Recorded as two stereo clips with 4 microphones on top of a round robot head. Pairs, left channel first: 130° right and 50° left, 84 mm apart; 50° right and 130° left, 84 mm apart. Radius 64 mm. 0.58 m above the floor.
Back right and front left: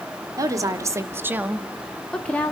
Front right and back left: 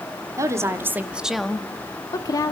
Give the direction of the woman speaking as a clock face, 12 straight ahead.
9 o'clock.